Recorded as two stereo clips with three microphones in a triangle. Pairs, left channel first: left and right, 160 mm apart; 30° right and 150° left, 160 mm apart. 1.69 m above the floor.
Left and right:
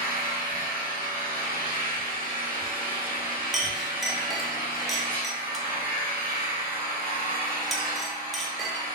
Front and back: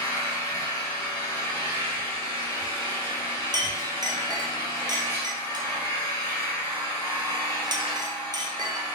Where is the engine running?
95° right, 2 m.